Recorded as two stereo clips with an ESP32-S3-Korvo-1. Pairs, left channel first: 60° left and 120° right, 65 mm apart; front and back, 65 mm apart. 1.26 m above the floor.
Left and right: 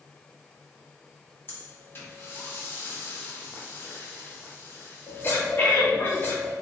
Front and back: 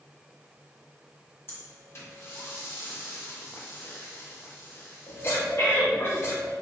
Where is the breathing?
25° left, 0.7 m.